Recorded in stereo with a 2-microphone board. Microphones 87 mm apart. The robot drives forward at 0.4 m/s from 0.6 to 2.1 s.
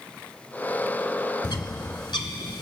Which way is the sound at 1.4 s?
60° left (ahead or behind).